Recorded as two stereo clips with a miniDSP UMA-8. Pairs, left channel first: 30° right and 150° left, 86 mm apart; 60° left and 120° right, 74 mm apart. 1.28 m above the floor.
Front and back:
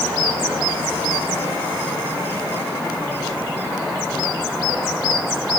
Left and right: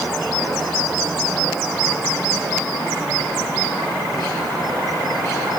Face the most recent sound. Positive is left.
No sound to turn to.